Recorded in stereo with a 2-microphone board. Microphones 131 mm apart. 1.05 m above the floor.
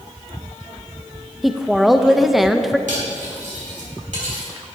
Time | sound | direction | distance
1.4 | a woman speaking | centre (ahead or behind) | 0.6 m
2.9 | cutlery clinking | 75° right (ahead or behind) | 3 m